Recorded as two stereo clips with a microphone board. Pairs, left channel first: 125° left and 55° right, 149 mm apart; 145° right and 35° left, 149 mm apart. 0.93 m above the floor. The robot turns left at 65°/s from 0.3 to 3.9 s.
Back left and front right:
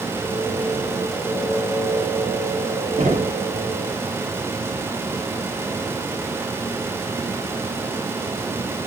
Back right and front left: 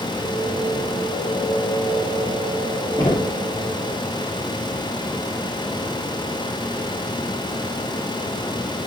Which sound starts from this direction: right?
Knocking, at 3.0 s.